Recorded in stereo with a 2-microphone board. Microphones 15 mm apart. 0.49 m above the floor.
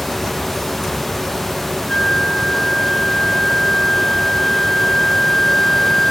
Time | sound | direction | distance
1.9 | a flute | 55° left (ahead or behind) | 3.5 m